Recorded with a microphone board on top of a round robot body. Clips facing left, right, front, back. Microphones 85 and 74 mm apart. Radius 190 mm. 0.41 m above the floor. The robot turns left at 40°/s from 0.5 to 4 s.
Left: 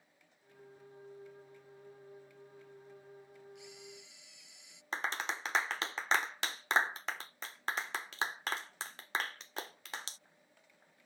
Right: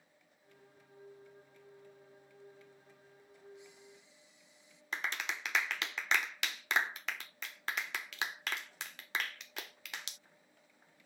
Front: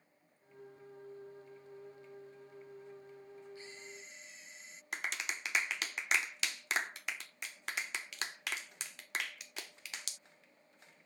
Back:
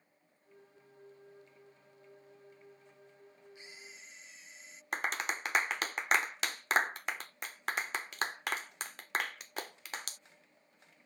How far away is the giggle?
No giggle in this recording.